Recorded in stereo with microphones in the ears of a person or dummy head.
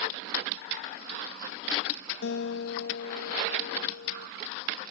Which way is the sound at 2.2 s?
75° left (ahead or behind).